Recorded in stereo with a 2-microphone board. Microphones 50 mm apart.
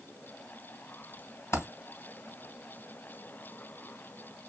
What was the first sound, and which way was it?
A dropped coin, 65° left (ahead or behind).